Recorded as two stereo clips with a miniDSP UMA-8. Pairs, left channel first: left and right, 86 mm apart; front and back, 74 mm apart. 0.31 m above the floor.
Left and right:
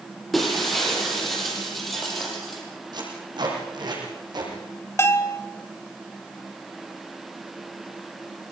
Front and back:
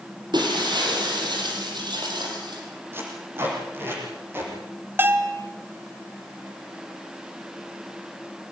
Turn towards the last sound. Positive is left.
turn(degrees=135)